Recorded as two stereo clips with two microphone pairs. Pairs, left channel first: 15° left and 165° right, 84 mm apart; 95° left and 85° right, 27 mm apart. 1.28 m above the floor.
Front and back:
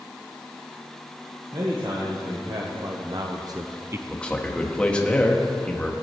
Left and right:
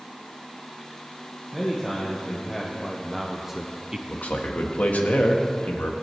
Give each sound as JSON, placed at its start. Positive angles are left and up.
{"t": 1.5, "sound": "a man speaking", "azimuth_deg": 175, "distance_m": 1.7}
{"t": 4.1, "sound": "a man speaking", "azimuth_deg": 90, "distance_m": 1.4}